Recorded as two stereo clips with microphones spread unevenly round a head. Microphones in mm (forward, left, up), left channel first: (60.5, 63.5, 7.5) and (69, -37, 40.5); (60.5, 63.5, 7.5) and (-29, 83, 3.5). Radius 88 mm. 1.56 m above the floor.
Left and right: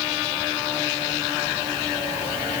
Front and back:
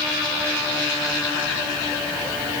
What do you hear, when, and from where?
Only background noise.